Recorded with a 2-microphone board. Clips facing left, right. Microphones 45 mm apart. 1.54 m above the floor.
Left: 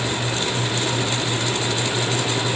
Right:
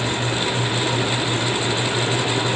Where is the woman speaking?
No woman speaking in this recording.